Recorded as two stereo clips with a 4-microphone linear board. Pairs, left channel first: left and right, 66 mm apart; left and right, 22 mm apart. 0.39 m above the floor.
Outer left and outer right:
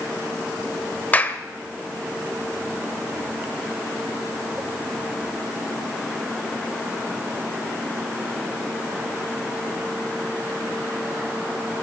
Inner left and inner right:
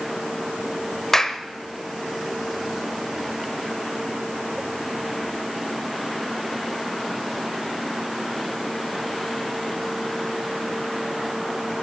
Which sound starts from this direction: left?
A clap, at 1.1 s.